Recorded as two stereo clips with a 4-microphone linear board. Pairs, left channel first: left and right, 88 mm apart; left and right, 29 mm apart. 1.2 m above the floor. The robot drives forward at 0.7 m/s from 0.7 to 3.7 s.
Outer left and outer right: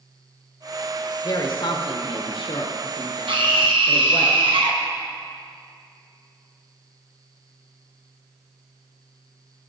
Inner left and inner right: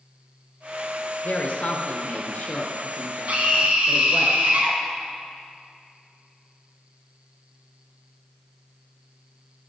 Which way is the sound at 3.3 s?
75° right (ahead or behind).